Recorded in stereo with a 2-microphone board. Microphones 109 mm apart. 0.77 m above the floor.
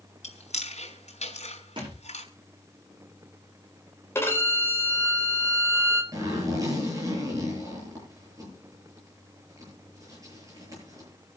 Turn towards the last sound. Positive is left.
turn(degrees=-30)  # may be behind; listen again after turning